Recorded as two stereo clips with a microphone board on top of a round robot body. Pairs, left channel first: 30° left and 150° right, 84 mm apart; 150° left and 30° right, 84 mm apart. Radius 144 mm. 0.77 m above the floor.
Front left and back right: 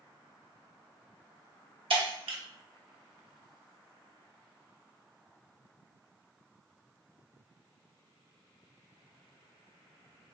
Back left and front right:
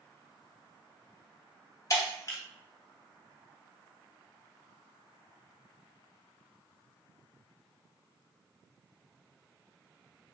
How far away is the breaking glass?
About 1.2 m.